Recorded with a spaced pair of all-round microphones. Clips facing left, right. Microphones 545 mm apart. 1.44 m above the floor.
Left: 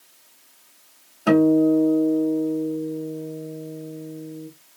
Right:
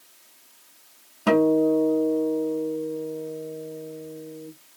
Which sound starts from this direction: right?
A guitar, at 1.3 s.